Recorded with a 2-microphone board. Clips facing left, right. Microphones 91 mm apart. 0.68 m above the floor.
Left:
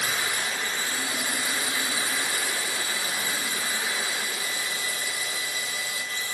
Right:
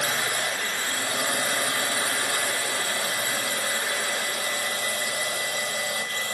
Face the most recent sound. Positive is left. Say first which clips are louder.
# right 2 dB
turn(degrees=-55)  # may be behind; listen again after turning